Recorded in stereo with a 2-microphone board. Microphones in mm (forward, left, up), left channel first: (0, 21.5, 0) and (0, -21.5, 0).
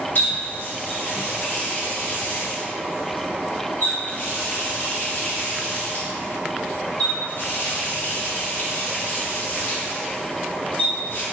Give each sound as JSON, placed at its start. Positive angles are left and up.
{"t": 0.1, "sound": "a running tap", "side_deg": 40, "distance_m": 1.5}